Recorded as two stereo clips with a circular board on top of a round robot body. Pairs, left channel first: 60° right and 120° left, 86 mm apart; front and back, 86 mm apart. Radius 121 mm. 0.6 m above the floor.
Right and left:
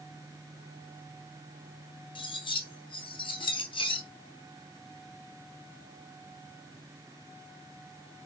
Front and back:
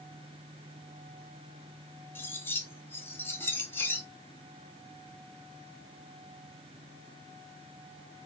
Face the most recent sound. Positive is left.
turn(degrees=-65)